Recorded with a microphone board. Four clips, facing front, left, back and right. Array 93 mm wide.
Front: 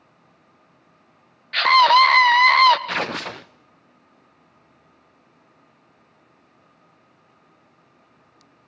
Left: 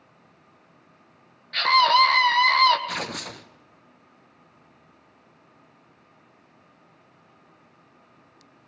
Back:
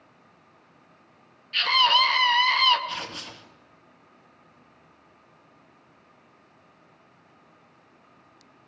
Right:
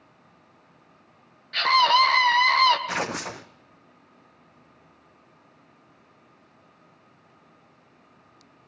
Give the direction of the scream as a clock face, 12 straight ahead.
12 o'clock.